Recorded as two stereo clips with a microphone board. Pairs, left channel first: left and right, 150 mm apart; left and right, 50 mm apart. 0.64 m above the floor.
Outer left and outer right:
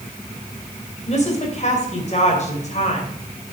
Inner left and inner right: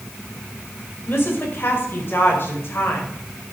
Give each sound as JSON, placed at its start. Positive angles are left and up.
{"t": 1.1, "sound": "a woman speaking", "side_deg": 50, "distance_m": 2.5}